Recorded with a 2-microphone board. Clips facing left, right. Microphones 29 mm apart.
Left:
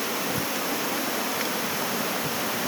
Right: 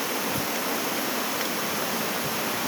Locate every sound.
Only background noise.